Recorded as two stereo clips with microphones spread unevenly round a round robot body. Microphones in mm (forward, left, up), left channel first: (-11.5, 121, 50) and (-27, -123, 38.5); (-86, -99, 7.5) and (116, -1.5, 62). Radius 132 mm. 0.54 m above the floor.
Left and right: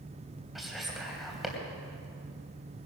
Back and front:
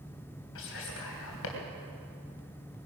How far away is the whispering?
About 3 m.